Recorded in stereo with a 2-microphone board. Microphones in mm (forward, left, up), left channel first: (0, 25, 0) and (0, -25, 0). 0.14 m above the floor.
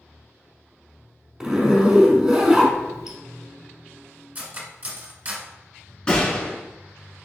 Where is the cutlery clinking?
35° right (ahead or behind), 0.9 m.